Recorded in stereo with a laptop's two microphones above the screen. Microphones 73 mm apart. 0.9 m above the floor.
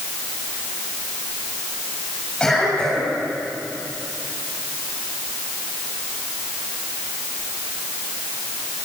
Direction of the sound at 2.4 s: 5° left (ahead or behind).